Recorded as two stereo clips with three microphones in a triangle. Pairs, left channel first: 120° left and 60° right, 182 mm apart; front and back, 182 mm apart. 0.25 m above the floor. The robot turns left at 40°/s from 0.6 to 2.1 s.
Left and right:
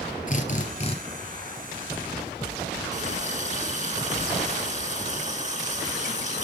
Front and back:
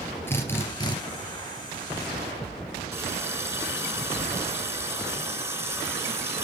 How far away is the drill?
About 2.5 m.